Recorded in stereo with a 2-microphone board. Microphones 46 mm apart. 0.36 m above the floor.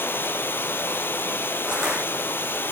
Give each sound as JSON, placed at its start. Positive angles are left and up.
{"t": 0.0, "sound": "running water", "side_deg": 50, "distance_m": 2.5}
{"t": 1.7, "sound": "crushing", "side_deg": -15, "distance_m": 10.0}